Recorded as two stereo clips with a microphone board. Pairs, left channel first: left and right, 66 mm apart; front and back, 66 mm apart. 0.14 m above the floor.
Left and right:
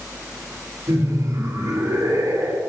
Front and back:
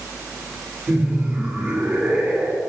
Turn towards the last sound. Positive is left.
turn(degrees=-115)